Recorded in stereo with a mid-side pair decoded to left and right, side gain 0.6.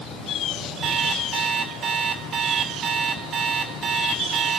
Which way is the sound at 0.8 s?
50° right.